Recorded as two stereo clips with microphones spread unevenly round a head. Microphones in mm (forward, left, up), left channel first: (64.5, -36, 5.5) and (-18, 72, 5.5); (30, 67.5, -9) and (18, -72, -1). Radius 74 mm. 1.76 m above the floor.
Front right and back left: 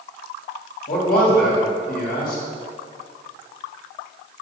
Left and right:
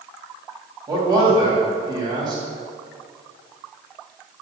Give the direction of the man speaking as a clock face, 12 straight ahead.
1 o'clock.